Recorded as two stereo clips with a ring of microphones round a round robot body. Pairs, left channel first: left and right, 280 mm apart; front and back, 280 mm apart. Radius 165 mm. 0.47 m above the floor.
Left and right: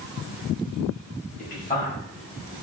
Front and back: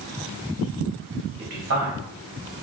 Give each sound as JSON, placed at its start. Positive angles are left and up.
{"t": 1.4, "sound": "a man speaking", "azimuth_deg": 155, "distance_m": 1.9}